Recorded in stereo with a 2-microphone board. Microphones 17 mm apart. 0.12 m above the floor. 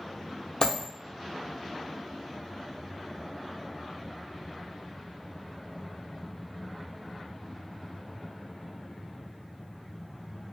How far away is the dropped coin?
About 1.0 m.